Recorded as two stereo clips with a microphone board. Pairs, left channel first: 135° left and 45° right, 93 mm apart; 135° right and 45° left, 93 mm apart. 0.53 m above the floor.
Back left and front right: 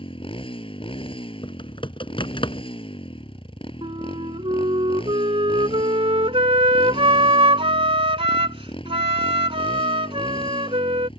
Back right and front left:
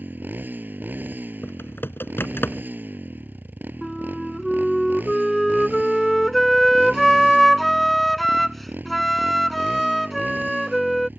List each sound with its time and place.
0.0 s a motorcycle: 115° left
1.4 s typing on a keyboard: 160° left
3.8 s a flute: 45° right